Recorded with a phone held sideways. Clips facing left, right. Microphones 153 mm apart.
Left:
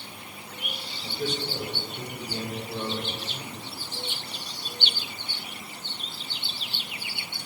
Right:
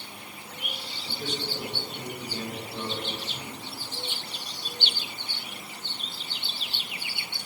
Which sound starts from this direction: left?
A man speaking, at 1.0 s.